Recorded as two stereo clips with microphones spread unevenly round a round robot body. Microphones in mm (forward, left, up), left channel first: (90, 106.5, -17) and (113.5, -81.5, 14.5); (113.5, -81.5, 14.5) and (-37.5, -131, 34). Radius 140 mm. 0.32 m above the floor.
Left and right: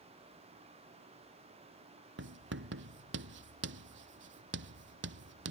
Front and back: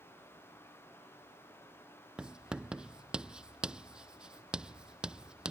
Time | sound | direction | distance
2.2 | writing | 80° right | ?